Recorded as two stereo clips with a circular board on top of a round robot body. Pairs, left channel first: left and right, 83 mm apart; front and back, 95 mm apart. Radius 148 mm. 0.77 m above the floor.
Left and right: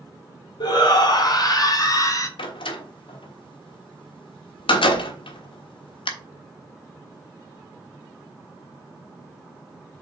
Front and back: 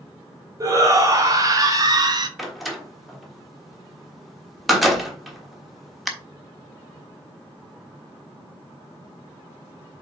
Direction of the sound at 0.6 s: 125° left.